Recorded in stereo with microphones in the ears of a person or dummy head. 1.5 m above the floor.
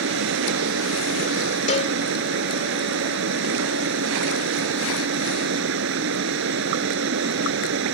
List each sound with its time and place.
0.0 s running water: 70° right (ahead or behind)
1.7 s a cowbell: 35° left (ahead or behind)